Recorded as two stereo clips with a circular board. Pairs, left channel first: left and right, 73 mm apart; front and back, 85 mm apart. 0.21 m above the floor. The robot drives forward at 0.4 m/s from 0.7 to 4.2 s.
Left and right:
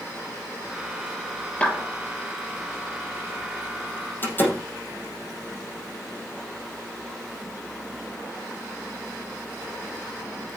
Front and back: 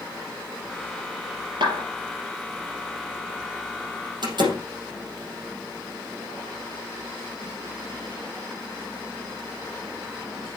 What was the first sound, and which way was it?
A clap, 165° left.